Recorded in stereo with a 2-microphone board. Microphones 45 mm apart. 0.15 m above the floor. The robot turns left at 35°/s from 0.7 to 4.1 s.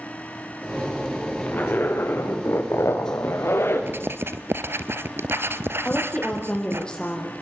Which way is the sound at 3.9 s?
60° right (ahead or behind).